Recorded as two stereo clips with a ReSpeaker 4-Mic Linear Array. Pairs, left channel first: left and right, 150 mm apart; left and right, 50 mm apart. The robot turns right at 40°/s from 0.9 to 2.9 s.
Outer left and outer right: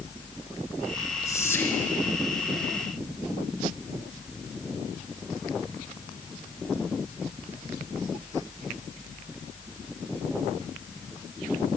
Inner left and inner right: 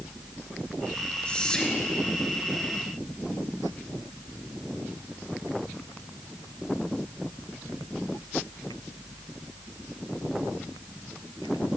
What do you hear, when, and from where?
1.2 s whispering: 20° left (ahead or behind), 1.2 m; by 1.9 s 10° left (ahead or behind), 1.2 m